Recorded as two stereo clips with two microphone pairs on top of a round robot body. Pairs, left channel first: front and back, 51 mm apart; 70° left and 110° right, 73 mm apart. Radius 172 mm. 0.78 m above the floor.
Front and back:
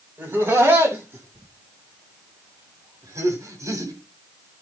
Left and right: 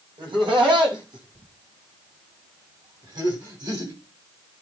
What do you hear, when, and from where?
0.2 s laughter: 125° right, 8 m; by 3.9 s 150° right, 7.5 m